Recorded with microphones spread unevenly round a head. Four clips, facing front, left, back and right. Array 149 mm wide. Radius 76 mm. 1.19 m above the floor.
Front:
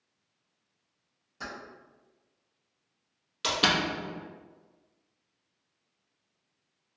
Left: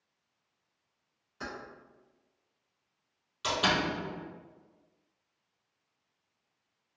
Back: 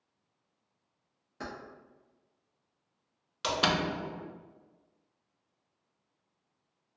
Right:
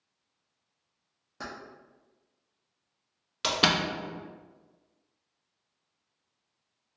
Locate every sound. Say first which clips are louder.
1.4 s keys jangling: right 1 dB, even; 120° right, 1.0 m
3.4 s a door slam: right 2 dB, front 1 dB; 75° right, 0.7 m